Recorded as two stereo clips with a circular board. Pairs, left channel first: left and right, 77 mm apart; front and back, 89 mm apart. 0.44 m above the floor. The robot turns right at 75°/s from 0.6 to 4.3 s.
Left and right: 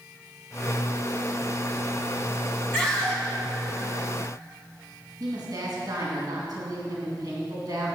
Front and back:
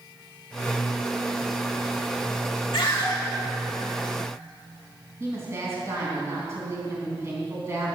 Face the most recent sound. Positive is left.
turn(degrees=-120)